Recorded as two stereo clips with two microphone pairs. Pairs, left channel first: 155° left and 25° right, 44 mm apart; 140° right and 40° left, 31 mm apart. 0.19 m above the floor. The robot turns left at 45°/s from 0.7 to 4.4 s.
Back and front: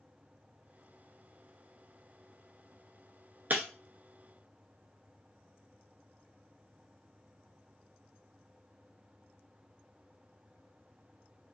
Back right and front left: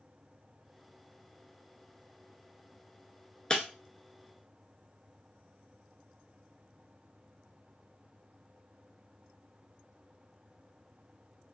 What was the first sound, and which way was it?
Breaking glass, 75° right.